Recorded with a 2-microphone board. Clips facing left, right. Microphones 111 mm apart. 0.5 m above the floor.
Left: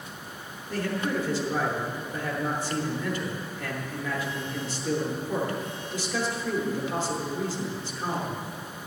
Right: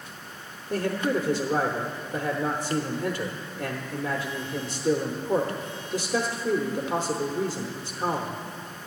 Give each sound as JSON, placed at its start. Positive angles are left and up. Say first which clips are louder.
{"t": 0.7, "sound": "a man speaking", "louder": "right 3 dB", "side_deg": -40, "distance_m": 1.0}